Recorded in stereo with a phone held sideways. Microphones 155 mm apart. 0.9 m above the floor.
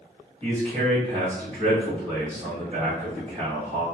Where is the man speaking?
35° right (ahead or behind), 1.4 m.